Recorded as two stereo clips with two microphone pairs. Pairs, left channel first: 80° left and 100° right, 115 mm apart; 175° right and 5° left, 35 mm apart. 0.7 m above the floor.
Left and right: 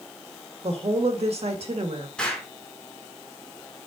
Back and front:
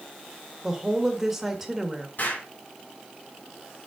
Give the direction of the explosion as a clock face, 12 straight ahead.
7 o'clock.